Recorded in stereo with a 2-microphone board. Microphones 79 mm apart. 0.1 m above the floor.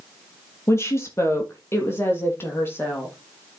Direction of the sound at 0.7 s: 35° left (ahead or behind).